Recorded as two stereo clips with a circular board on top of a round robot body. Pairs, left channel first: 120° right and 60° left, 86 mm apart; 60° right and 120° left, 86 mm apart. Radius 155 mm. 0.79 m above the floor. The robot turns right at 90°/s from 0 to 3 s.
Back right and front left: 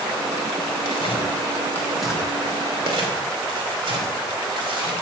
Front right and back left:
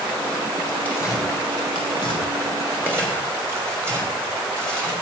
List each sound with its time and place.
0.8 s tearing paper: 135° right, 3 m; by 4.9 s 60° left, 3 m